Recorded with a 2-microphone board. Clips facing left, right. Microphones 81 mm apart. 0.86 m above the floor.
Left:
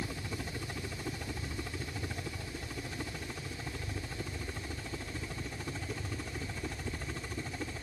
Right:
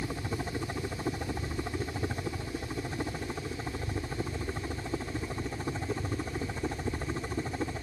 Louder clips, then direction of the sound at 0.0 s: Right 5 dB; 30° right (ahead or behind).